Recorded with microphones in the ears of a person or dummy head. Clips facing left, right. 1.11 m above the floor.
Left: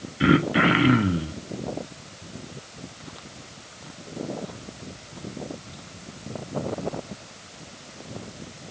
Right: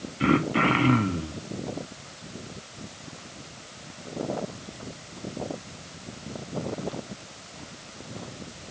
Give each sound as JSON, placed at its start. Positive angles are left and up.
{"t": 0.2, "sound": "throat clearing", "side_deg": 15, "distance_m": 1.1}